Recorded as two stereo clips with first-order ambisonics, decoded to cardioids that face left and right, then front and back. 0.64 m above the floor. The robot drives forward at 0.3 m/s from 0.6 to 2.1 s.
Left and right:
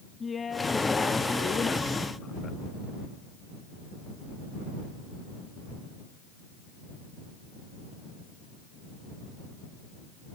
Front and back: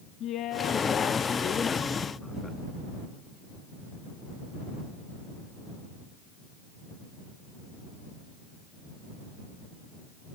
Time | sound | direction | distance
0.2 | a woman speaking | 25° left | 0.7 m